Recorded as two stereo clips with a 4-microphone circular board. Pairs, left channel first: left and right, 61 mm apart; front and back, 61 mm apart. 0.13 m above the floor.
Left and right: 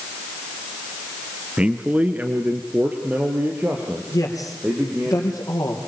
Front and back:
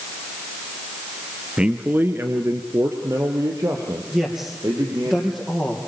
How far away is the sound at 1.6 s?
About 1.2 m.